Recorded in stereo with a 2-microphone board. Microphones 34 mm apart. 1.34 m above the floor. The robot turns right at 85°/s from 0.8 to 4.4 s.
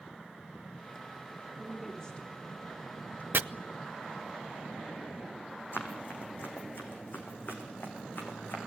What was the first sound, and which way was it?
A woman speaking, 20° right (ahead or behind).